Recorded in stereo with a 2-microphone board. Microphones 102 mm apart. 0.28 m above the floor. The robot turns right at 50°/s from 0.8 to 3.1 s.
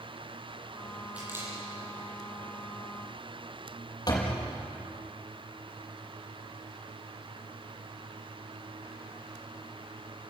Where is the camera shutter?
10° right (ahead or behind), 9.5 m; by 1.5 s 30° right (ahead or behind), 9.5 m.